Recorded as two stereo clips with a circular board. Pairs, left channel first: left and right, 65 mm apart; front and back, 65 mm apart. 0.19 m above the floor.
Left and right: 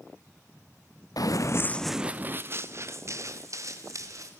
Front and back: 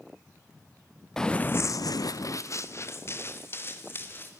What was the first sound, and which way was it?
Running footsteps, 80° left.